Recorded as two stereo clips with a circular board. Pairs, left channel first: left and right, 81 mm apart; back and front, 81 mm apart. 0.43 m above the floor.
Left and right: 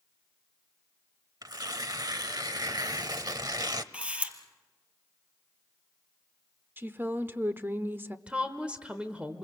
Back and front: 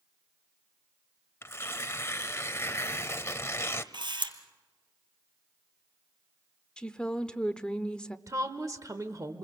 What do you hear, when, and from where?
1.4 s tearing paper: 125° right, 0.7 m
3.9 s a camera shutter: 15° right, 1.7 m
6.8 s a woman speaking: 115° right, 0.8 m
8.3 s a woman speaking: 20° right, 1.1 m